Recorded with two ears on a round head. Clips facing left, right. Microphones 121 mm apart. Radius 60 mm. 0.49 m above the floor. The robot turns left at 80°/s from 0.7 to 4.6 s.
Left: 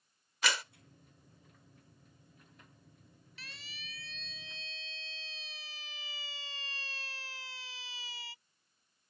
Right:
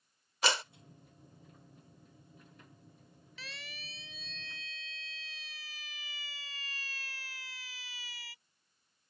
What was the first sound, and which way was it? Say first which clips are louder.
A clap: right 3 dB; 25° right (ahead or behind).